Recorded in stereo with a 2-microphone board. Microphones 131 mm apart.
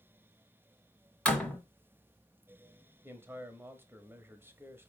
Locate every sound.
1.2 s a door slam: 10° left (ahead or behind), 1.7 m
3.0 s a man speaking: 15° right (ahead or behind), 1.1 m